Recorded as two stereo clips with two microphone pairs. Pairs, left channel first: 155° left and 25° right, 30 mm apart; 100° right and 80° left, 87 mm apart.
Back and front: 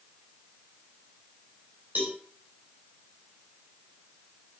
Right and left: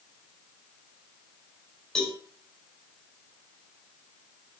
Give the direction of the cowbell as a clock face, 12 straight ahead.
1 o'clock.